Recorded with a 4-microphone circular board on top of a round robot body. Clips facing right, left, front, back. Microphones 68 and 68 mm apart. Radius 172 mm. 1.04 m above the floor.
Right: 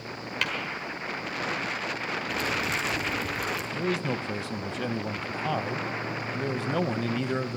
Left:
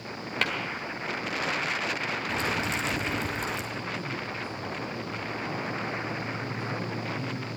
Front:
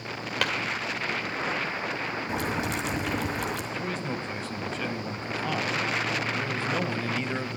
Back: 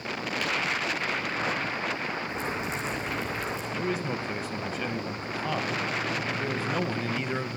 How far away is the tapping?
About 1.1 m.